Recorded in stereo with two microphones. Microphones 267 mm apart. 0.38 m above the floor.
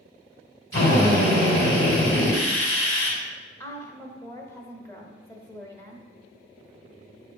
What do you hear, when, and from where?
0.7 s a drill: 55° left (ahead or behind), 3 m
3.6 s a woman speaking: 10° left (ahead or behind), 1.0 m